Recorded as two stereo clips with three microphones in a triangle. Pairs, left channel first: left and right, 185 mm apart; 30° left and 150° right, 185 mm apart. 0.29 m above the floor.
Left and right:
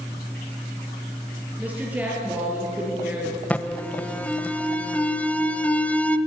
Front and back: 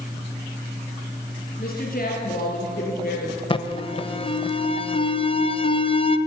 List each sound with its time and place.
1.6 s a woman speaking: 10° right, 4.5 m
3.5 s an alarm: 15° left, 0.6 m